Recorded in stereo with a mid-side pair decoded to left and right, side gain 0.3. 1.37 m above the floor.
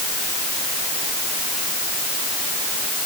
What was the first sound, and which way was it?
Only background noise.